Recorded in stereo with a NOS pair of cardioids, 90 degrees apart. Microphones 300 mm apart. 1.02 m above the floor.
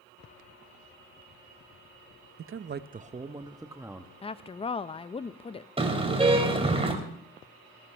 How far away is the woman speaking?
About 0.6 m.